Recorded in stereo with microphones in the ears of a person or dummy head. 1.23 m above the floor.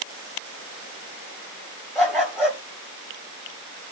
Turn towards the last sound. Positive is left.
turn(degrees=0)  # may be behind; listen again after turning